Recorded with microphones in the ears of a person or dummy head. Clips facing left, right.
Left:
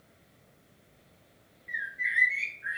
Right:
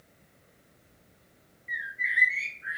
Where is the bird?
10° left (ahead or behind), 0.9 m.